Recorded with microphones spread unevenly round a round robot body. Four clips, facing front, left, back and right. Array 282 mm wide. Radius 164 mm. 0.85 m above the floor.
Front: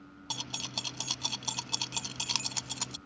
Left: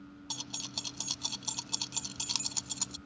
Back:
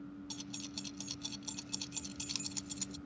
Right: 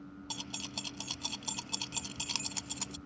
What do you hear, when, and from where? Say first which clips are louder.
0.3 s keys jangling: right 2 dB, front 4 dB; straight ahead